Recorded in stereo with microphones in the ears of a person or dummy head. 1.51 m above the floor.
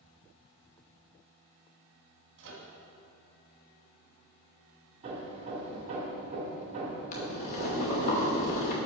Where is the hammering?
35° right (ahead or behind), 2 m.